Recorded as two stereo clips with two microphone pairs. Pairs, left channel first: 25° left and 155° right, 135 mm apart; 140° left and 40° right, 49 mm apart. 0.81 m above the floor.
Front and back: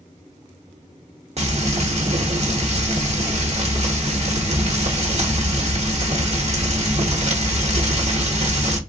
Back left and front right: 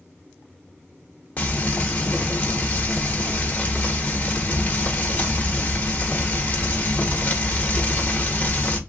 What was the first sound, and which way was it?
Frying, 165° right.